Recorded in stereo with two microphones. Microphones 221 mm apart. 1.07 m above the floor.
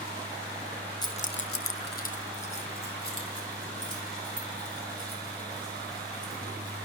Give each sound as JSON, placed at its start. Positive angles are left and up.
{"t": 1.0, "sound": "keys jangling", "side_deg": 20, "distance_m": 0.9}